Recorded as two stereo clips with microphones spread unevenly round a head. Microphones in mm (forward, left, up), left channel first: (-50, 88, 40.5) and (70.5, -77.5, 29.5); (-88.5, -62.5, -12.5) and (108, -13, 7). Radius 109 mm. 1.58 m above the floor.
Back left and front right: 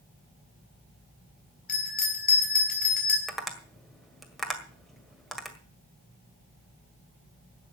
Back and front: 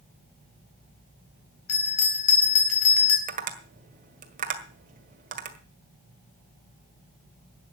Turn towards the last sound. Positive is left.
turn(degrees=40)